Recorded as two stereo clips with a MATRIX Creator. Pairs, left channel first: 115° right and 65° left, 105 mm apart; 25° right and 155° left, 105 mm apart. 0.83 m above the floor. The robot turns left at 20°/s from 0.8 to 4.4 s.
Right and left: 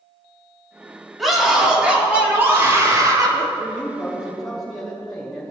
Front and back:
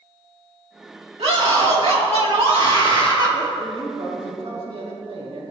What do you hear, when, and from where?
1.2 s a scream: 160° left, 2.5 m; by 3.5 s 115° left, 2.5 m
3.6 s a man speaking: 175° left, 4 m; by 5.5 s 155° left, 4 m